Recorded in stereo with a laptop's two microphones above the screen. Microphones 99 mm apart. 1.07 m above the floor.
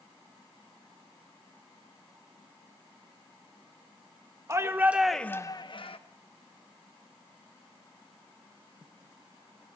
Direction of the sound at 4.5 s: 30° right (ahead or behind).